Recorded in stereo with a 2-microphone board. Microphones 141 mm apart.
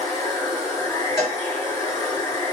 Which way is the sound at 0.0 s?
30° left (ahead or behind).